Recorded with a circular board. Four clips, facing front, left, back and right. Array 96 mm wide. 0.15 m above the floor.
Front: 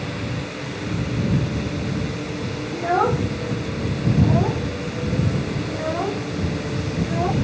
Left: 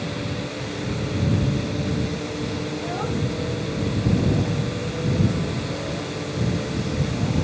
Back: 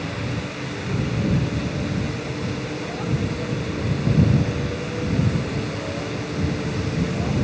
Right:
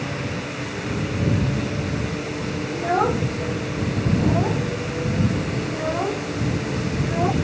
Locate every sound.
2.7 s a child speaking: 35° right; by 7.3 s 50° right